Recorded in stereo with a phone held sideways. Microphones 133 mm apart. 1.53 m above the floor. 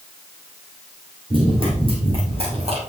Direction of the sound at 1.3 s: 40° right (ahead or behind).